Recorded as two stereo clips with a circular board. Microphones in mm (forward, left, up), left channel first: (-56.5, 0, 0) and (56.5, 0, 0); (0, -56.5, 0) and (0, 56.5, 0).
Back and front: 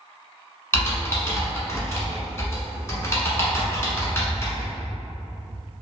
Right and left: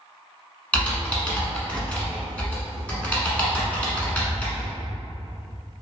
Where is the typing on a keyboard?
155° right, 1.0 m.